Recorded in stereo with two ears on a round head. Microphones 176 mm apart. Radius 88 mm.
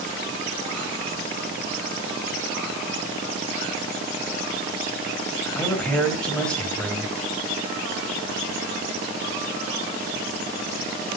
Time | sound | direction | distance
5.5 | a man speaking | 5° left (ahead or behind) | 3 m